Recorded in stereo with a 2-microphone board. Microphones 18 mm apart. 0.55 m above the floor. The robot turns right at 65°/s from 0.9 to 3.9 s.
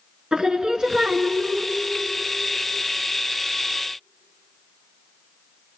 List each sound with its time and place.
0.3 s singing: 135° right, 1.5 m; by 1.7 s 80° right, 1.5 m